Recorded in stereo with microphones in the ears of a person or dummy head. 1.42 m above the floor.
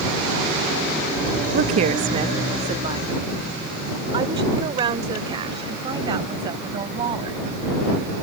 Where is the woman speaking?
50° right (ahead or behind); by 7.4 s 25° right (ahead or behind).